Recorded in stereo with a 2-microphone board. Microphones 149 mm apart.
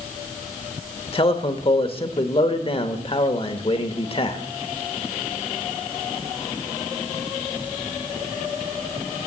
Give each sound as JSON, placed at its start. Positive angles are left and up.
{"t": 1.1, "sound": "a man speaking", "side_deg": 40, "distance_m": 0.9}